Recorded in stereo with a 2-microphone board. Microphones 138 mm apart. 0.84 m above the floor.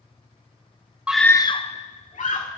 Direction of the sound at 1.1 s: 10° right (ahead or behind).